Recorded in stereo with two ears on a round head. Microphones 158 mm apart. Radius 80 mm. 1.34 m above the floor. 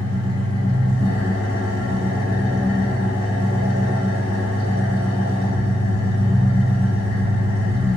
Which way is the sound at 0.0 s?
50° left (ahead or behind).